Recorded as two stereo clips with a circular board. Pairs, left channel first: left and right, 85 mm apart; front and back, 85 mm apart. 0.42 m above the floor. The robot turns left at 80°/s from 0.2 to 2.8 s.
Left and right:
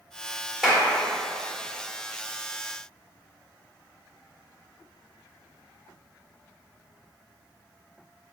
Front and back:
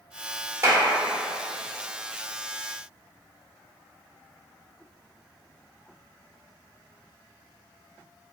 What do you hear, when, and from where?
0.6 s a clap: 175° right, 0.6 m; by 0.8 s 165° left, 0.6 m